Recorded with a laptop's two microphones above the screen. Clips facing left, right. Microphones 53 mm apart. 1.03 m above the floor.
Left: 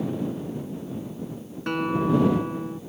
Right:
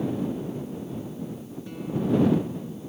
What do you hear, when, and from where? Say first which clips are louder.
1.7 s a guitar: left 4 dB; 70° left (ahead or behind)